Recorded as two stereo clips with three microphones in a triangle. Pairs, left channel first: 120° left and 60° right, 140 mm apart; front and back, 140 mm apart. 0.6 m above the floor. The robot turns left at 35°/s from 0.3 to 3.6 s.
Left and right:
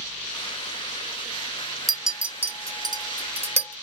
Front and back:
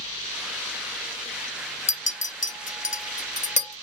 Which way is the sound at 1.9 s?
30° left.